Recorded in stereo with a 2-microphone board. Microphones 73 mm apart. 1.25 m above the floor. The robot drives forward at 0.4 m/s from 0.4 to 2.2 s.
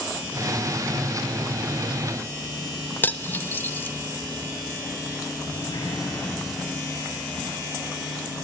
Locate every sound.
3.0 s cutlery clinking: 25° left (ahead or behind), 0.6 m
5.5 s a sliding door: 75° left (ahead or behind), 9 m